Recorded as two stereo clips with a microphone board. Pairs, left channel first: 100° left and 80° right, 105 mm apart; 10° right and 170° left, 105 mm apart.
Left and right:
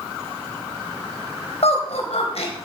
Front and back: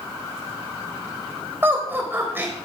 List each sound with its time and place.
1.6 s laughter: 100° left, 3.5 m